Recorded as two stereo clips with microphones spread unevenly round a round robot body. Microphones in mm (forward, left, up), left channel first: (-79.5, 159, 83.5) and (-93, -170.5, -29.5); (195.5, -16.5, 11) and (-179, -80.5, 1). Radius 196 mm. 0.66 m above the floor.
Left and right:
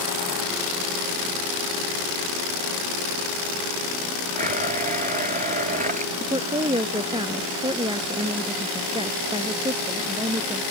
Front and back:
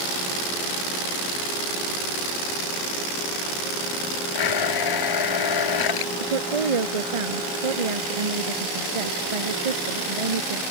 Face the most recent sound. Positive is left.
turn(degrees=-170)